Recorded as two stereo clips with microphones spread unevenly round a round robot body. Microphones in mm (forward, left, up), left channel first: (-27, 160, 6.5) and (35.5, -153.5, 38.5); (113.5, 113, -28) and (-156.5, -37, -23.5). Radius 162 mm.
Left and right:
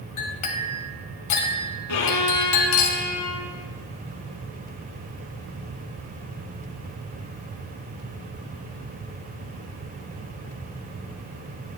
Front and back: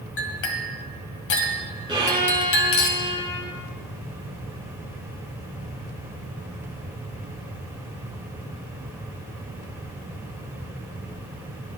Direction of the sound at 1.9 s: 135° left.